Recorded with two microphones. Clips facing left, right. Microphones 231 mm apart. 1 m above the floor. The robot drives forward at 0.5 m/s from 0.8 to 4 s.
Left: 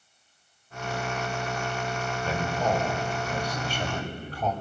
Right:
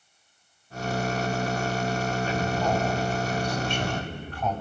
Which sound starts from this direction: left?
A man speaking, at 2.2 s.